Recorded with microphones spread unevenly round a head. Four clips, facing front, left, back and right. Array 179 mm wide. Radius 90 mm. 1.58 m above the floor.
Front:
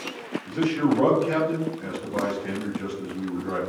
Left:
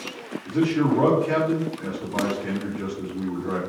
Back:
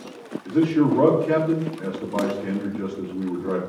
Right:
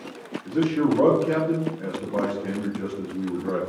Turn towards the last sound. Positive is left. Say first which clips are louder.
# even, back 4 dB
turn(degrees=-170)